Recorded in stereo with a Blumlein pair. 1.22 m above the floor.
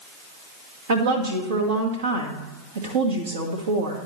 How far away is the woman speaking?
About 1.6 m.